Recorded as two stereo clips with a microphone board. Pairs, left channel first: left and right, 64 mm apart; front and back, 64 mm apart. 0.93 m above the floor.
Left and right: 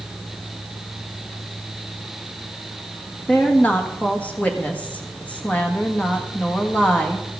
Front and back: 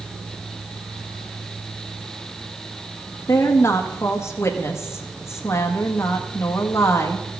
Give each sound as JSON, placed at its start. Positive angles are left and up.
{"t": 3.3, "sound": "a woman speaking", "azimuth_deg": 30, "distance_m": 1.4}